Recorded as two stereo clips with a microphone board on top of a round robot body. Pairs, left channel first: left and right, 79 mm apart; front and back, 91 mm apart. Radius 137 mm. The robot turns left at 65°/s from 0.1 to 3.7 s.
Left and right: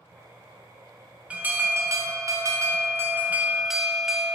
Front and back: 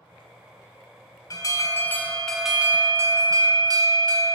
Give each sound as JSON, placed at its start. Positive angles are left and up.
{"t": 1.3, "sound": "an alarm", "azimuth_deg": -20, "distance_m": 0.9}